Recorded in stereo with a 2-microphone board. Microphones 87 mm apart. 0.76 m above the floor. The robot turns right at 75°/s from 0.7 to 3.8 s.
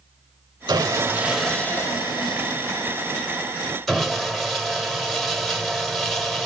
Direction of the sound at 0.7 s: 55° right.